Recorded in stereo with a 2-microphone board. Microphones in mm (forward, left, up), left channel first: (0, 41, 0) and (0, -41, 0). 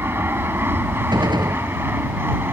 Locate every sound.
0.0 s an aircraft: 25° right (ahead or behind)
1.1 s a gunshot: 60° right (ahead or behind)